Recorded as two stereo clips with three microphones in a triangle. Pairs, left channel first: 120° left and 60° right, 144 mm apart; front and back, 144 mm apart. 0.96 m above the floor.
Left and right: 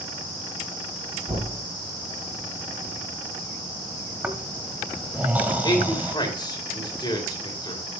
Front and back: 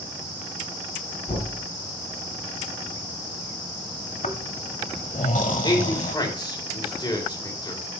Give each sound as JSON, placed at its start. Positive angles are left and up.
{"t": 1.3, "sound": "knocking", "azimuth_deg": -5, "distance_m": 8.0}
{"t": 4.2, "sound": "snoring", "azimuth_deg": 15, "distance_m": 1.4}
{"t": 5.6, "sound": "a man speaking", "azimuth_deg": 60, "distance_m": 4.5}